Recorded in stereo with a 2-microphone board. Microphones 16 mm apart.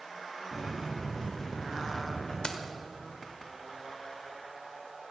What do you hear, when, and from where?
0.5 s footsteps: 35° left (ahead or behind), 6 m; by 2.3 s 30° left (ahead or behind), 5 m
2.4 s keys jangling: 60° left (ahead or behind), 1.5 m